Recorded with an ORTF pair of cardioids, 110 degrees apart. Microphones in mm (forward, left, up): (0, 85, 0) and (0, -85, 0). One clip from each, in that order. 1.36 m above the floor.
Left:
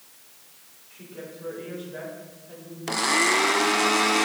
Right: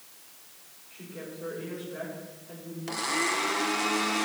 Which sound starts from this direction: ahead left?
A blender, at 2.9 s.